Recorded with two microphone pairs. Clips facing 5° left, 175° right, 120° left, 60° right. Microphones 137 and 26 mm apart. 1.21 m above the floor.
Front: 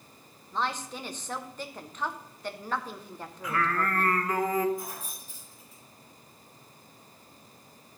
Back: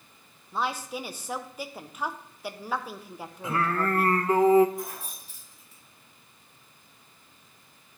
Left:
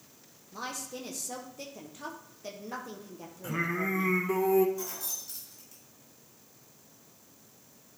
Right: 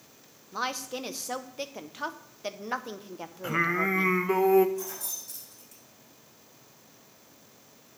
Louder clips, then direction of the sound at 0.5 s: Back 2 dB, right 6 dB; 90° right.